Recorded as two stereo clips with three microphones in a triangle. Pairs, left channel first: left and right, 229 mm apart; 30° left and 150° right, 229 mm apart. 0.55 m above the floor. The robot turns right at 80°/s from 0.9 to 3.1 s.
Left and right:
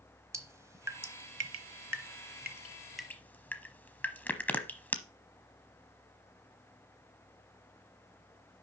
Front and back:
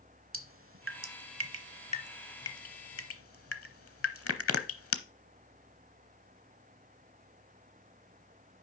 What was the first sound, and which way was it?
Dripping, 170° right.